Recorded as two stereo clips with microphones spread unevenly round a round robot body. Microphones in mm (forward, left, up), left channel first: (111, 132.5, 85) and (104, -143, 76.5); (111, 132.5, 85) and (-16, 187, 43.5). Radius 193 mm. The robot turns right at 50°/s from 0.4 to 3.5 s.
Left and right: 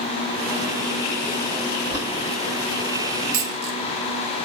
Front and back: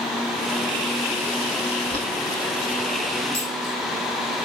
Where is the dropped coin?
75° right, 0.6 m; by 3.8 s 65° right, 0.6 m.